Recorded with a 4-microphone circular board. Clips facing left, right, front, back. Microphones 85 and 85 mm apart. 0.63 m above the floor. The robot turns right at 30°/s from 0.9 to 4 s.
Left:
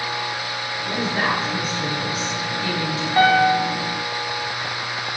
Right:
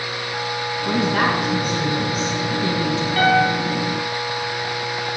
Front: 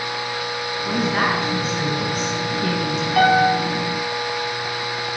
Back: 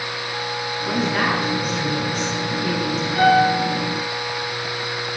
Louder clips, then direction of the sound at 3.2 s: Left 2 dB, even; 30° left.